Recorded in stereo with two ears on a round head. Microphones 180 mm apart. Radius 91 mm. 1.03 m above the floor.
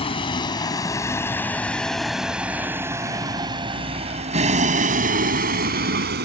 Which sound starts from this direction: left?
A vehicle, at 0.0 s.